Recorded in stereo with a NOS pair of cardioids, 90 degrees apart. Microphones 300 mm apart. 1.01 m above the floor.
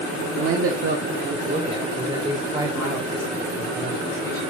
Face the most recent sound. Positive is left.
turn(degrees=5)